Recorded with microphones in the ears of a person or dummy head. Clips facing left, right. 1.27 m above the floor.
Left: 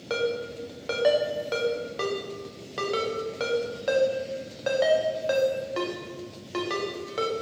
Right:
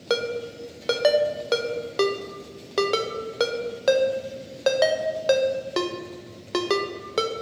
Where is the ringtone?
60° right (ahead or behind), 0.5 m.